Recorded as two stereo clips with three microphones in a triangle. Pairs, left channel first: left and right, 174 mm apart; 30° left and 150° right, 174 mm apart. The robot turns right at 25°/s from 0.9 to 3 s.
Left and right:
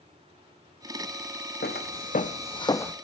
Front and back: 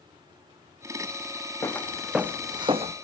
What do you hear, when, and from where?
1.6 s footsteps: 105° left, 1.3 m; by 3.0 s 170° left, 0.9 m